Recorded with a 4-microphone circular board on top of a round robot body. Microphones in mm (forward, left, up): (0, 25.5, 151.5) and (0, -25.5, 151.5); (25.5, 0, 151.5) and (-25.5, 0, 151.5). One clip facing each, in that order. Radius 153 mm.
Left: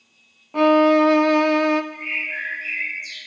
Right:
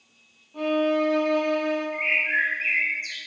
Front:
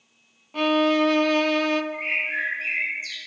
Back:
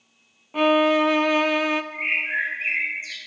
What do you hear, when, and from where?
0.5 s a violin: 105° left, 0.5 m
1.9 s a bird: 120° right, 4 m